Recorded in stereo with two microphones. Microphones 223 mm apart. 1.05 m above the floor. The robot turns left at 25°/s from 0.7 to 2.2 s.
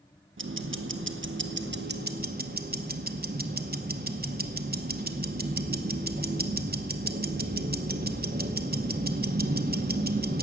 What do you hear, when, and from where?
0.4 s ticking: 90° right, 0.8 m; by 10.4 s 130° right, 0.8 m